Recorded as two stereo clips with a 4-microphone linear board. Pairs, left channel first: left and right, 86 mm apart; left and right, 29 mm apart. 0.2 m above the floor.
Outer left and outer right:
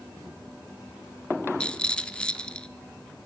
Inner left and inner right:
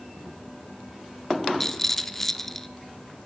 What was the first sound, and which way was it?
A rattle, 10° left (ahead or behind).